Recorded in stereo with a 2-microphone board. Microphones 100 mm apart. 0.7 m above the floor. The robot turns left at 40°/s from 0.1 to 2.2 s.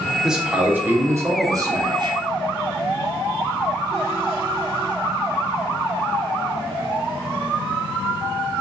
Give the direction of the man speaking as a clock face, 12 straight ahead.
12 o'clock.